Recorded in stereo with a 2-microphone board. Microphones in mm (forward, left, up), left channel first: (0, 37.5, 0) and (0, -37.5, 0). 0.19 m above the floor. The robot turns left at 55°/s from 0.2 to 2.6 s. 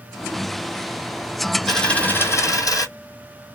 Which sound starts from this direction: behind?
A dropped coin, at 1.7 s.